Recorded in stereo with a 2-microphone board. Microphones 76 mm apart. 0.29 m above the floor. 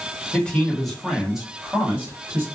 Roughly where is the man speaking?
Centre.